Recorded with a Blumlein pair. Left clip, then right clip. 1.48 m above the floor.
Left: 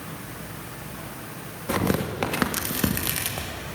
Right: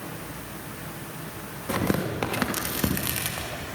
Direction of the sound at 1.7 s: 5° left.